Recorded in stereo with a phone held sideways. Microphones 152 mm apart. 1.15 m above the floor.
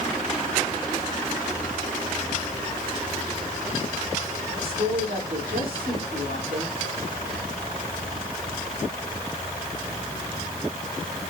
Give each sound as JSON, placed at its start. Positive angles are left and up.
{"t": 4.6, "sound": "a woman speaking", "side_deg": -75, "distance_m": 3.5}